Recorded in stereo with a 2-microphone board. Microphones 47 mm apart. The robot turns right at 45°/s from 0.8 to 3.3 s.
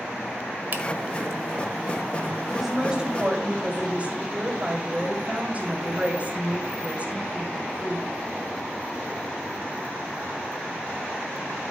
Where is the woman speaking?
Straight behind, 2.5 m; by 8.1 s 140° right, 2.5 m.